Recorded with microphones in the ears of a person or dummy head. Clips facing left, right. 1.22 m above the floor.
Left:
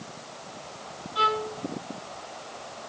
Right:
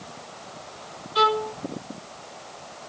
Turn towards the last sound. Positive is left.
turn(degrees=-75)  # may be behind; listen again after turning